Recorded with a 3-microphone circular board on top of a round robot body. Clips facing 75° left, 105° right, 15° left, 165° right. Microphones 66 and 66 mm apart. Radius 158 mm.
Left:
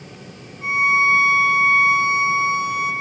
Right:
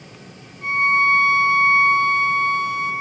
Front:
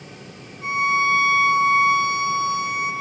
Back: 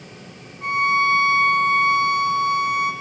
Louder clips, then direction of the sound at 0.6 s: Even, back 1 dB; 155° left.